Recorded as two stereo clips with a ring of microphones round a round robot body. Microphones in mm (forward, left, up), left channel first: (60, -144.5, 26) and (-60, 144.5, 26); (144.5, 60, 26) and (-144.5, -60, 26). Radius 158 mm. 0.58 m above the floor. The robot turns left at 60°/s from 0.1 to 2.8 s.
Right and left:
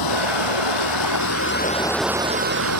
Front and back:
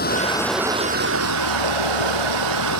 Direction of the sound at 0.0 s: 40° right.